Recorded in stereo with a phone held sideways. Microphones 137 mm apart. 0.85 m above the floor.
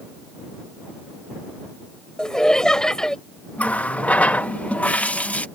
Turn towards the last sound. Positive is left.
turn(degrees=10)  # may be behind; listen again after turning